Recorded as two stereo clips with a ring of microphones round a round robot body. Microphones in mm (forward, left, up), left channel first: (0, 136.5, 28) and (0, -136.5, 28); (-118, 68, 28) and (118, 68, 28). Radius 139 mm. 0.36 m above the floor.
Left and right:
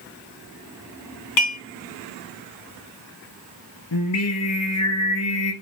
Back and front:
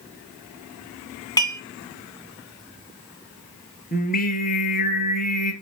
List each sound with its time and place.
1.4 s dishes clattering: 105° left, 2.5 m
3.9 s singing: 125° left, 1.7 m